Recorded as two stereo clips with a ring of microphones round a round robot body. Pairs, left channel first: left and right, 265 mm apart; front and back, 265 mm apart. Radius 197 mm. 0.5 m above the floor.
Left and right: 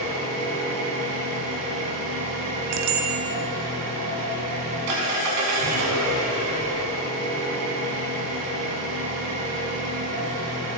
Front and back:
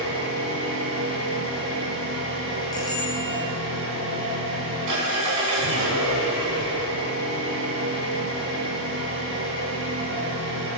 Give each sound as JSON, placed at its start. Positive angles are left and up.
{"t": 0.0, "sound": "an engine running", "azimuth_deg": -130, "distance_m": 5.5}
{"t": 2.7, "sound": "a bicycle bell", "azimuth_deg": -80, "distance_m": 3.0}